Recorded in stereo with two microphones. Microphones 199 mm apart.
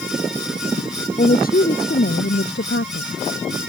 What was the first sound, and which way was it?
A woman speaking, 45° left (ahead or behind).